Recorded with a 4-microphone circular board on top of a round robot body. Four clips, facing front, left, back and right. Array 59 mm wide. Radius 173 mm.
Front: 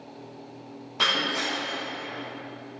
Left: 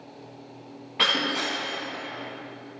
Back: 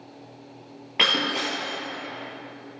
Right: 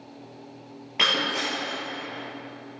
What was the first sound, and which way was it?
Breaking glass, 165° right.